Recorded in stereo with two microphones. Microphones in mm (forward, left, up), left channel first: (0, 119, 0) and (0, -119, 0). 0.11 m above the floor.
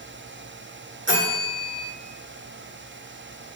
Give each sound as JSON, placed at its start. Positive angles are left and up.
{"t": 1.1, "sound": "a bell", "side_deg": -55, "distance_m": 1.7}